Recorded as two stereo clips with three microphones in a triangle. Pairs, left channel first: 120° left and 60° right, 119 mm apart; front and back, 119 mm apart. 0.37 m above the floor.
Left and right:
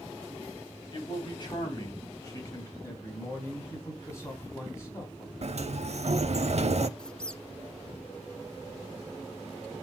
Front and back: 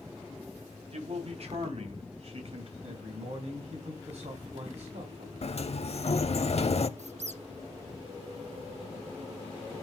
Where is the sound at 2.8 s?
175° right, 3 m.